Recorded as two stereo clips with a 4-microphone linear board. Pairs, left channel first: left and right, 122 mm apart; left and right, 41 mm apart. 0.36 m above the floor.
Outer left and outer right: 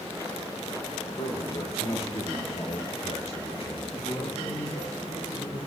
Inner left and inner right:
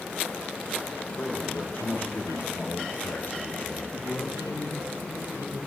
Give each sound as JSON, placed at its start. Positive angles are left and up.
{"t": 1.2, "sound": "a man speaking", "side_deg": 55, "distance_m": 5.5}
{"t": 3.9, "sound": "a man speaking", "side_deg": 50, "distance_m": 6.5}